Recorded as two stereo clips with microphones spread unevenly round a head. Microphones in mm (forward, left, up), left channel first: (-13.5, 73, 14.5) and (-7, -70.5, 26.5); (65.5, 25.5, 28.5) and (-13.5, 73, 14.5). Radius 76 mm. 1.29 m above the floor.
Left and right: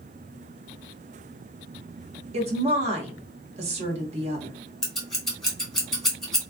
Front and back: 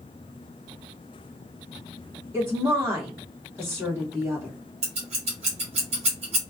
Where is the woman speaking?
135° right, 1.1 m.